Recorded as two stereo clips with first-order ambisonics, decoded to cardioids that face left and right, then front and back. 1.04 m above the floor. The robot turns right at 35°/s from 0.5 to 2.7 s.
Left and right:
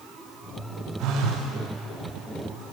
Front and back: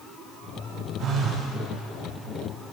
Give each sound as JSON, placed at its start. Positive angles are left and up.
{"t": 1.0, "sound": "a phone buzzing", "azimuth_deg": -125, "distance_m": 1.1}